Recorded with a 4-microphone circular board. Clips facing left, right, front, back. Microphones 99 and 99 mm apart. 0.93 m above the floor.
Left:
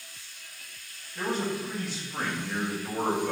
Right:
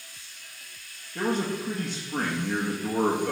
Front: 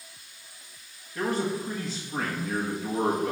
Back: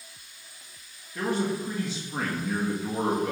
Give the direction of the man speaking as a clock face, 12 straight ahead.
3 o'clock.